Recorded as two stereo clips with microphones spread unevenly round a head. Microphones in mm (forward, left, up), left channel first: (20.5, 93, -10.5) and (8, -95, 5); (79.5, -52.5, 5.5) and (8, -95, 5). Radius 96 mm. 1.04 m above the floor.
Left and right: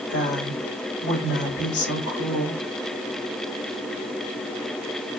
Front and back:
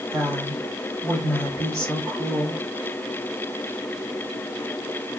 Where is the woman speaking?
120° left, 2.5 m.